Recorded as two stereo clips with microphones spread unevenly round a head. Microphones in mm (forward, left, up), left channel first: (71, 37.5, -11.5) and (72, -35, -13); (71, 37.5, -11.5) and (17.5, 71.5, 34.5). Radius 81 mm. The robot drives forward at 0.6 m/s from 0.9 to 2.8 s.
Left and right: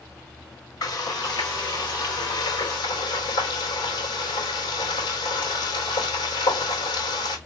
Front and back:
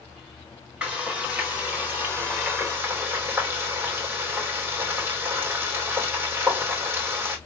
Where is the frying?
70° left, 4 m; by 7.4 s 90° left, 3.5 m.